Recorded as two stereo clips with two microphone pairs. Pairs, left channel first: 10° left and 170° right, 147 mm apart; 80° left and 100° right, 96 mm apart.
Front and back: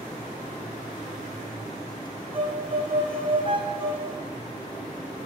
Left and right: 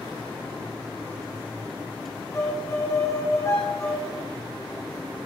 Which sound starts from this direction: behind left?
A violin, at 2.3 s.